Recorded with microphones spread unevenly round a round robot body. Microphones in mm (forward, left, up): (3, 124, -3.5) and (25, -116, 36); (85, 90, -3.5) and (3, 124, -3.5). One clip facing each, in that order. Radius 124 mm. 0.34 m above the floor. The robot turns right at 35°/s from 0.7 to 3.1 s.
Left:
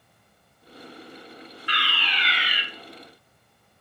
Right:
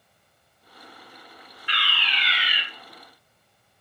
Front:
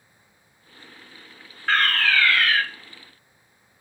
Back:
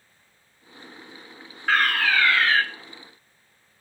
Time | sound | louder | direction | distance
1.7 | a fire alarm | left 1 dB, even | 70° left | 3.5 m